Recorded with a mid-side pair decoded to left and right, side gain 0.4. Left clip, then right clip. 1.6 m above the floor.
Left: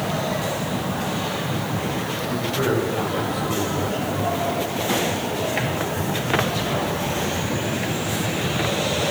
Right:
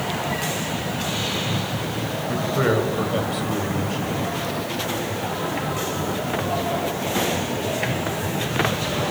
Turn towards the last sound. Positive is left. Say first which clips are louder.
# right 2 dB
turn(degrees=-50)